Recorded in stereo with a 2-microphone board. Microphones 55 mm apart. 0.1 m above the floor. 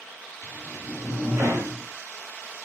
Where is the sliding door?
55° right (ahead or behind), 6 m.